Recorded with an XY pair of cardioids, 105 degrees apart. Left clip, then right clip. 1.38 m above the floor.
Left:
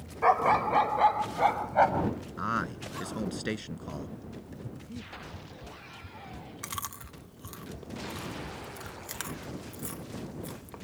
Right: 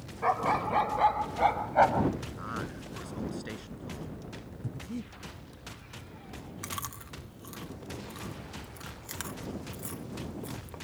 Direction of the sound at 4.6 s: 30° right.